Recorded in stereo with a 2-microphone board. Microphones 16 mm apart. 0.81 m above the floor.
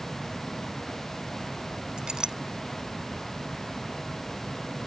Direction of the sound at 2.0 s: 55° right (ahead or behind).